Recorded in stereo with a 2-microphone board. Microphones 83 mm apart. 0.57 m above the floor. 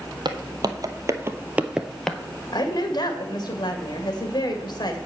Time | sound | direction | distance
0.2 | footsteps | 60° right (ahead or behind) | 1.3 m
2.5 | a woman speaking | 60° left (ahead or behind) | 2 m